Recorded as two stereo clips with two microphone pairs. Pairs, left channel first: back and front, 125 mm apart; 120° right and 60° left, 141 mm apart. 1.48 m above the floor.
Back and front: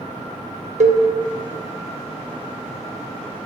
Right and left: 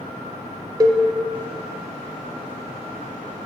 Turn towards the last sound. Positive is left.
turn(degrees=0)